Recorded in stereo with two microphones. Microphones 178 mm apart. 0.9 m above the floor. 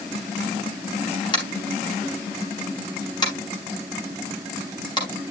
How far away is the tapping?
About 4.5 m.